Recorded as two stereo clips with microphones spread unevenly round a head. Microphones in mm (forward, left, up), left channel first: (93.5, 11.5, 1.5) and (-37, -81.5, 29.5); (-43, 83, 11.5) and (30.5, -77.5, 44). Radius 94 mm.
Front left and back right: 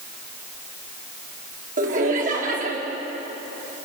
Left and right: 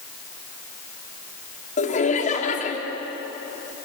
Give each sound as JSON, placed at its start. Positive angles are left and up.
{"t": 1.8, "sound": "laughter", "azimuth_deg": 160, "distance_m": 2.5}